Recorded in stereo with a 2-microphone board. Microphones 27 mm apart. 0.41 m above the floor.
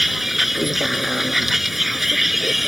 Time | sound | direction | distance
0.0 | a vehicle | 10° right (ahead or behind) | ?